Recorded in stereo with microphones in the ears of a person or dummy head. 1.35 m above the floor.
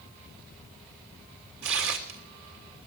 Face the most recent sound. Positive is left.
turn(degrees=-60)  # may be behind; listen again after turning